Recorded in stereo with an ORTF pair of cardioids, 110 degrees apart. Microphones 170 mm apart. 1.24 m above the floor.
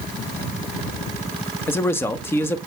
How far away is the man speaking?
About 1.4 m.